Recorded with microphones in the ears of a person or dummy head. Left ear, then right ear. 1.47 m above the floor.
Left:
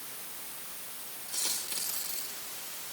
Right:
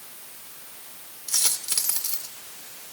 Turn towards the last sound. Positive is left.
turn(degrees=-60)  # may be behind; listen again after turning